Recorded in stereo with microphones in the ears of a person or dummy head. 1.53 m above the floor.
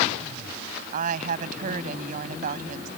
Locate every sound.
0.9 s a woman speaking: 50° right (ahead or behind)